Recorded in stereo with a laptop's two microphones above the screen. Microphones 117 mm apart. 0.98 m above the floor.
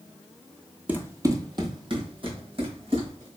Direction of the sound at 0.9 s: 15° right (ahead or behind).